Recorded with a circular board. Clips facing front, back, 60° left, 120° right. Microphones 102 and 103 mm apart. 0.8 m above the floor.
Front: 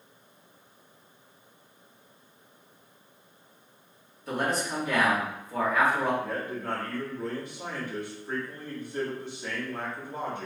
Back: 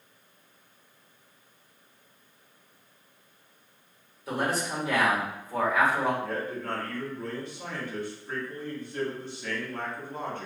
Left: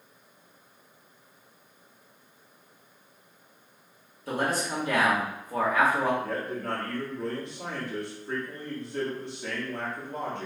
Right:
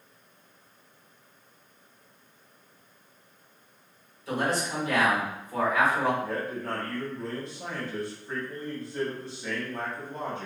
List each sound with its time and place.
4.3 s a man speaking: 95° left, 1.9 m
6.2 s a man speaking: 70° left, 1.6 m